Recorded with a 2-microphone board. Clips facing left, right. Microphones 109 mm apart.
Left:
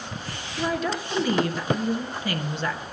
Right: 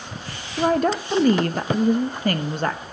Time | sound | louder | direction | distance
0.6 | a woman speaking | right 7 dB | 50° right (ahead or behind) | 0.8 m